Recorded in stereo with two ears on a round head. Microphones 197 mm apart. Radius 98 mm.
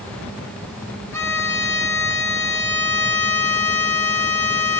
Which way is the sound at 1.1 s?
10° left (ahead or behind).